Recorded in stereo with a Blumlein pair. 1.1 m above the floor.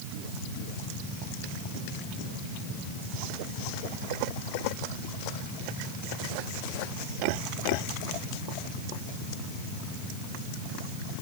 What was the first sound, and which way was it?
Only background noise.